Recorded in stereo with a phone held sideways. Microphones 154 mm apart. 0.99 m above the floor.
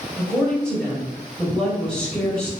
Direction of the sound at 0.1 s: 5° left (ahead or behind).